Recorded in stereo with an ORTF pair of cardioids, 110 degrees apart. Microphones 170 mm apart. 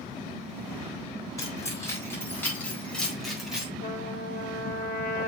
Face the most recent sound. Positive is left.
turn(degrees=55)